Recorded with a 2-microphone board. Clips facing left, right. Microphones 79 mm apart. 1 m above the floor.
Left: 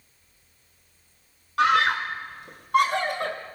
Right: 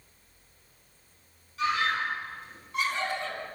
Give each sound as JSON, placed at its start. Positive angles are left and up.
{"t": 1.6, "sound": "a scream", "side_deg": 75, "distance_m": 3.5}